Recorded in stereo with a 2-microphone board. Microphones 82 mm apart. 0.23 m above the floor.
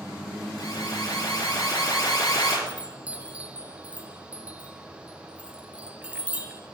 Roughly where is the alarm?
Left.